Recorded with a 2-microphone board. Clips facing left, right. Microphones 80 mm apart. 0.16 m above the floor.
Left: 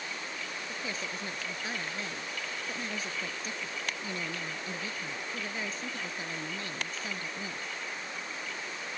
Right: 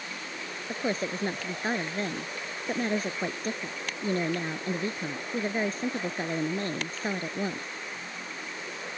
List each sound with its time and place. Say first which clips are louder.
0.7 s a woman speaking: right 11 dB; 45° right (ahead or behind)